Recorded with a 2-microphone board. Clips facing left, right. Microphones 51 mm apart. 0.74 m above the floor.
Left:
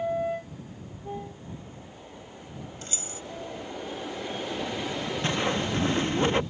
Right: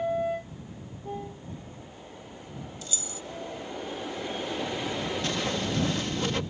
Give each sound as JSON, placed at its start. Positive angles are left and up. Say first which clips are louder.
{"t": 2.8, "sound": "keys jangling", "louder": "even", "side_deg": 40}
{"t": 5.2, "sound": "a whoosh", "louder": "left 5 dB", "side_deg": 30}